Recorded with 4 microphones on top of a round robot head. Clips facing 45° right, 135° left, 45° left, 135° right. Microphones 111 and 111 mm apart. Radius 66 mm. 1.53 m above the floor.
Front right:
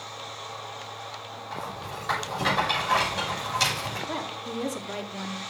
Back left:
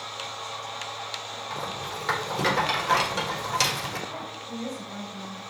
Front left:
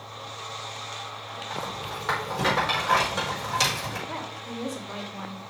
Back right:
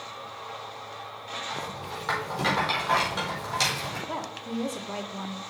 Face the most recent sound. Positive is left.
turn(degrees=-70)